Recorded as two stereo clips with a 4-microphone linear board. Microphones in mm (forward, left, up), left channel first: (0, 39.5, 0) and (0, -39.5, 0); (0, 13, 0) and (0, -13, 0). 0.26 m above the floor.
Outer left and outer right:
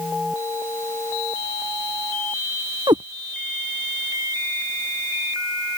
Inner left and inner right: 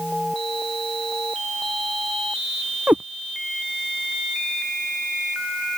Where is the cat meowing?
65° right (ahead or behind).